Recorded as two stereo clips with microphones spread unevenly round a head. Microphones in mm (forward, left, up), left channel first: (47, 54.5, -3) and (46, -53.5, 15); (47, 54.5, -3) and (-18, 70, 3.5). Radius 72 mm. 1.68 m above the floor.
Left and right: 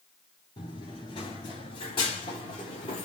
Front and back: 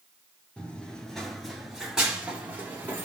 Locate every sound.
0.6 s running footsteps: 60° left, 1.9 m; by 3.0 s 135° left, 2 m